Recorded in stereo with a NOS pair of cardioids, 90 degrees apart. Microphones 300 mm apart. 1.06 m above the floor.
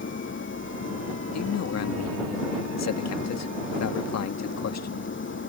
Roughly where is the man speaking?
Ahead left.